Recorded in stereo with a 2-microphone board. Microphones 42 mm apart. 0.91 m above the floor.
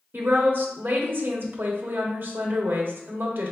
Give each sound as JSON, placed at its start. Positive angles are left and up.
{"t": 0.1, "sound": "a woman speaking", "side_deg": -55, "distance_m": 1.4}